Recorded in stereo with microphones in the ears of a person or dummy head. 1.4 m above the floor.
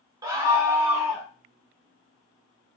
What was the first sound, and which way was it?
A scream, 15° right (ahead or behind).